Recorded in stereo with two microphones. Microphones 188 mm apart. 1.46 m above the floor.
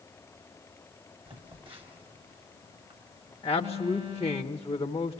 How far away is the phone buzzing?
About 1.8 m.